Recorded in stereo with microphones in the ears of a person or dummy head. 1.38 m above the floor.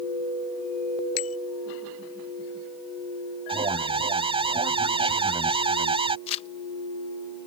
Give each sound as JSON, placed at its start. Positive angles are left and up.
{"t": 1.2, "sound": "a bicycle bell", "side_deg": 85}
{"t": 3.5, "sound": "an alarm", "side_deg": -25}
{"t": 6.3, "sound": "crumpling", "side_deg": 30}